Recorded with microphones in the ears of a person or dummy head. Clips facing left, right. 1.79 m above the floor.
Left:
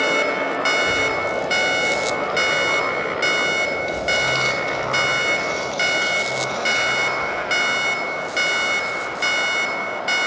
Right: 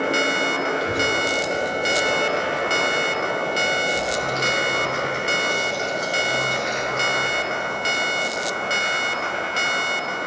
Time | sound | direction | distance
0.8 | a child speaking | centre (ahead or behind) | 1.4 m